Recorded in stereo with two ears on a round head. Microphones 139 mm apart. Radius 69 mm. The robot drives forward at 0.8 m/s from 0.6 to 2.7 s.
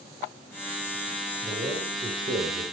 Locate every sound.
1.4 s a man speaking: 35° right (ahead or behind), 5 m; by 2.6 s 45° right (ahead or behind), 4 m